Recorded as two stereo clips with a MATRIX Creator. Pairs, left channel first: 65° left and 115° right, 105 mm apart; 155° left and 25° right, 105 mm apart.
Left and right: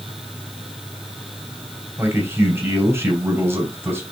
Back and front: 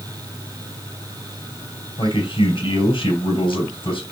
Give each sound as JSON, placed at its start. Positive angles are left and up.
{"t": 2.0, "sound": "a man speaking", "azimuth_deg": 180, "distance_m": 2.5}